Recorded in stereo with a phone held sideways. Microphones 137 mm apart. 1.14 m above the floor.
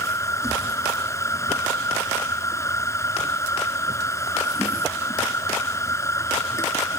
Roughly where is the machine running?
Left.